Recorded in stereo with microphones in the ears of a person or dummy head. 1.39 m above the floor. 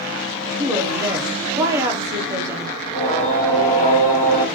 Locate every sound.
0.6 s a woman speaking: 20° right (ahead or behind), 0.5 m
2.8 s singing: 40° left (ahead or behind), 1.1 m